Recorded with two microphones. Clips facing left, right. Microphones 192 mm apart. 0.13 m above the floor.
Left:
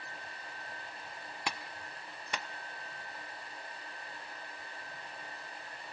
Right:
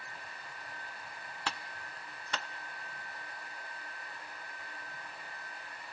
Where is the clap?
15° left (ahead or behind), 0.9 m.